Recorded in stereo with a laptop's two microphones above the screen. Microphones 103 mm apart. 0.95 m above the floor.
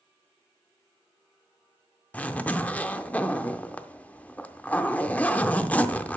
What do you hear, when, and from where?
2.1 s a zipper: 15° left (ahead or behind), 0.5 m